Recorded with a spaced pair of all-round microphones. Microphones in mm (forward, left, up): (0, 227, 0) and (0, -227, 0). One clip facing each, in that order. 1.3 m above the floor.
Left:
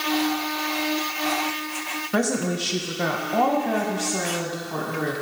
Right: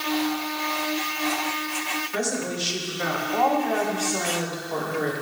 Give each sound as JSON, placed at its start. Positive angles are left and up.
{"t": 2.1, "sound": "a woman speaking", "side_deg": 75, "distance_m": 1.3}